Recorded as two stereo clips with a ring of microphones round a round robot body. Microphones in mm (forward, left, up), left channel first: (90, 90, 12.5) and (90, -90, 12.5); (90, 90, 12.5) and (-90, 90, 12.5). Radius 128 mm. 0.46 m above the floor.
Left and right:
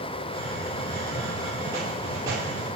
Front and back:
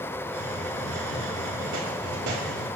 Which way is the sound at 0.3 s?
160° right.